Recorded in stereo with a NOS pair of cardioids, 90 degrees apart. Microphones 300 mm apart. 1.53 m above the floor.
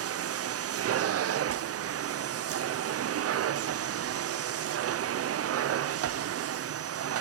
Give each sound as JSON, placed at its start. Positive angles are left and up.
{"t": 0.0, "sound": "a machine running", "azimuth_deg": -55, "distance_m": 0.8}